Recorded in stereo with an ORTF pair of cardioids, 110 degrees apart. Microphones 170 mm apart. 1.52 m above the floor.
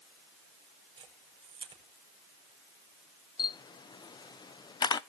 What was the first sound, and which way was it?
A camera shutter, 30° right.